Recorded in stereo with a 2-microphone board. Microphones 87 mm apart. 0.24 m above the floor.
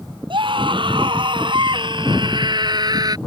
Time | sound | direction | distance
0.3 | a scream | 80° right | ?